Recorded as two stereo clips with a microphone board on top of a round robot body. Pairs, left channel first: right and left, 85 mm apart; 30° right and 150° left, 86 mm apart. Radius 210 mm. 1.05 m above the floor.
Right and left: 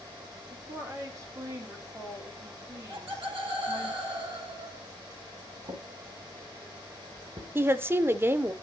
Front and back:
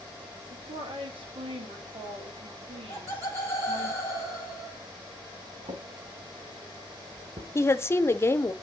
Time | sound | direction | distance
0.5 | a woman speaking | 145° left | 3 m
2.9 | laughter | 95° left | 7 m
5.7 | a drawer | 125° left | 1.0 m
7.5 | a woman speaking | 30° left | 0.8 m